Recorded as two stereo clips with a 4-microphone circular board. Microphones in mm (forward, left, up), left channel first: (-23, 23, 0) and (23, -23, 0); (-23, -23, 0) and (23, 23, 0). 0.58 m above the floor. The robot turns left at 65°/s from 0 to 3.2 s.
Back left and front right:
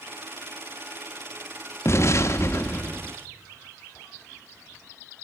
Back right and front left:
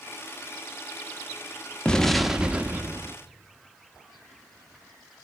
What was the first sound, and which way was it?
An explosion, 155° left.